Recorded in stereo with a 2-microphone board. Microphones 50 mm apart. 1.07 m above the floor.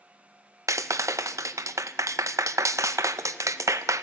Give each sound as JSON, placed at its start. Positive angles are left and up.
{"t": 0.7, "sound": "a clap", "side_deg": -80, "distance_m": 0.5}